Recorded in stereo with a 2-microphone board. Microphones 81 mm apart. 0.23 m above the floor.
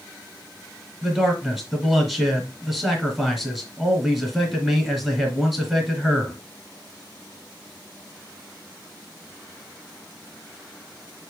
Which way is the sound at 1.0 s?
5° right (ahead or behind).